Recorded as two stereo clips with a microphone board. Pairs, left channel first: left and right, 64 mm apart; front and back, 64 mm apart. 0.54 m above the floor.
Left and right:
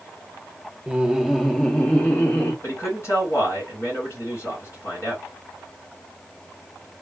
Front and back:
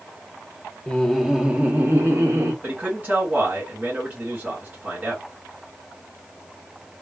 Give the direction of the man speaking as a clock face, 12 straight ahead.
8 o'clock.